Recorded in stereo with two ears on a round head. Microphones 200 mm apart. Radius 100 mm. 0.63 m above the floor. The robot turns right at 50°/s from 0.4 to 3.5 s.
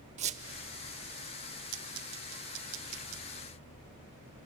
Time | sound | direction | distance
0.2 | a squeak | 30° right (ahead or behind) | 0.7 m